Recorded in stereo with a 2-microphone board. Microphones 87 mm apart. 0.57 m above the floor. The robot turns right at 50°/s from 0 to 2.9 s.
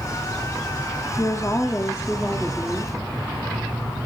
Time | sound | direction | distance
1.2 | a woman speaking | 105° left | 0.9 m